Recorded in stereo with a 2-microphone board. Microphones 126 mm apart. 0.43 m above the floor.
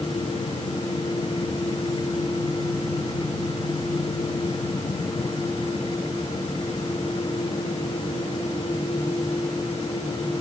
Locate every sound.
Only background noise.